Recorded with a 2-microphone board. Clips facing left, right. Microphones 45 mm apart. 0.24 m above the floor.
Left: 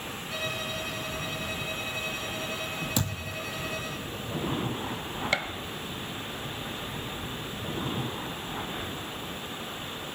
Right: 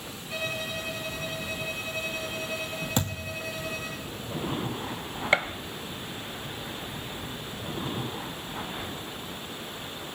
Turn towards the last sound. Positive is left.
turn(degrees=-25)  # may be behind; listen again after turning